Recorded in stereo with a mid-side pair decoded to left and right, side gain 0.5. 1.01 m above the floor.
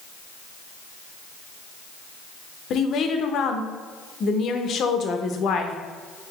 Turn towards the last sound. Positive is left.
turn(degrees=60)